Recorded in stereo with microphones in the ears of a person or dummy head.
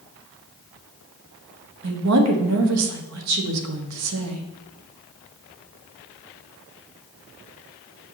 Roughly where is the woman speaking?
Right.